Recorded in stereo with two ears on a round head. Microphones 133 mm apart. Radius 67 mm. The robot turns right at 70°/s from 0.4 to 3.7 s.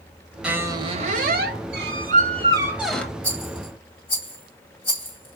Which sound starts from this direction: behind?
A squeak, at 0.4 s.